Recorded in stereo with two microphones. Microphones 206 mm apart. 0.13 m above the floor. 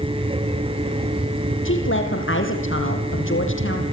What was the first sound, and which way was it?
A woman speaking, 75° left (ahead or behind).